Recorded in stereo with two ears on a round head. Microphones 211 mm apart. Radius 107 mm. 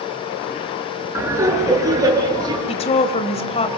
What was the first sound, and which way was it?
Laughter, 10° right (ahead or behind).